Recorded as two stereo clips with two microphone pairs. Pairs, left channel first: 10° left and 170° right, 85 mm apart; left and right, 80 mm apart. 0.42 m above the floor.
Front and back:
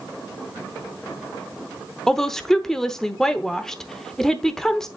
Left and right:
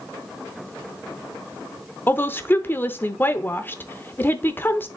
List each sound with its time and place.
2.1 s a woman speaking: 90° left, 0.8 m